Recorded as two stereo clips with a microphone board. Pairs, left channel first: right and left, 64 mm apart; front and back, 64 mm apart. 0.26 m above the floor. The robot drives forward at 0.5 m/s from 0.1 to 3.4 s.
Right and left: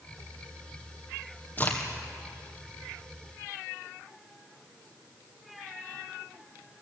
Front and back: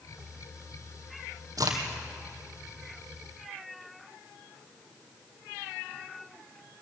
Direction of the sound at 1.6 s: 150° right.